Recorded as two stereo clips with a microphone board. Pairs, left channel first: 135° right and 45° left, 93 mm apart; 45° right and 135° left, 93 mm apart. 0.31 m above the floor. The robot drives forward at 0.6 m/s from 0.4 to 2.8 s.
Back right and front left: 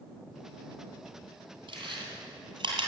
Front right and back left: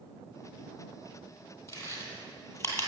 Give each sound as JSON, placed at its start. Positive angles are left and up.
{"t": 1.7, "sound": "chewing", "azimuth_deg": 10, "distance_m": 3.0}